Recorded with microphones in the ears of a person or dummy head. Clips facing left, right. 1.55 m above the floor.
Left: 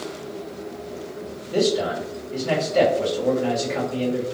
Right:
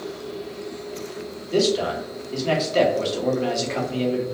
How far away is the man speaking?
About 1.1 m.